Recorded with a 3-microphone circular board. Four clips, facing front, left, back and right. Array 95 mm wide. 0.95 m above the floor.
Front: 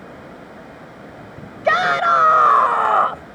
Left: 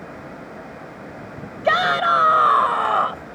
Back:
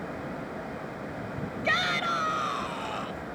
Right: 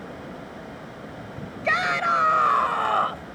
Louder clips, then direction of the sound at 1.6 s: Left 6 dB, front 13 dB; 35° left.